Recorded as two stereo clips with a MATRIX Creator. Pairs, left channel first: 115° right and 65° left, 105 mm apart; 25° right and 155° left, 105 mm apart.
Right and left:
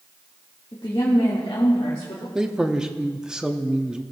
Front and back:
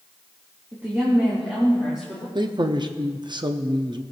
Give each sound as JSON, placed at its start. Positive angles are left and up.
{"t": 0.7, "sound": "a woman speaking", "azimuth_deg": -145, "distance_m": 1.8}
{"t": 2.4, "sound": "a man speaking", "azimuth_deg": 150, "distance_m": 0.7}